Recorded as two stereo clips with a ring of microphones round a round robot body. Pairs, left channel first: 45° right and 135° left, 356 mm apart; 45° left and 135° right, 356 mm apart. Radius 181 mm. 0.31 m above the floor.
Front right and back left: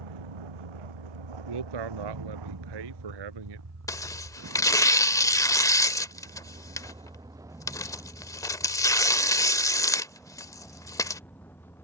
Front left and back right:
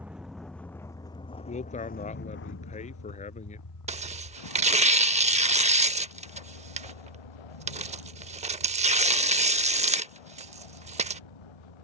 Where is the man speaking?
115° left.